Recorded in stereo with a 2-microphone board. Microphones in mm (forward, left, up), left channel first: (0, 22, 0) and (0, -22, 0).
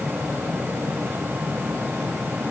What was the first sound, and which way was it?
Only background noise.